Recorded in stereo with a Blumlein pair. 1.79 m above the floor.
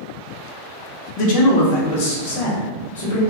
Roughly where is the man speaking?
Ahead left.